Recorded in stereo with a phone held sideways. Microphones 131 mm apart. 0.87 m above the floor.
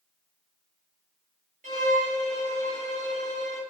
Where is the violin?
80° right, 0.8 m.